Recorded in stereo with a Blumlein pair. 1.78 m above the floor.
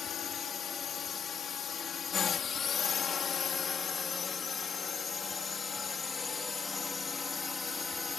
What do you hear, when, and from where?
0.0 s a drone: 25° left; by 8.2 s 15° left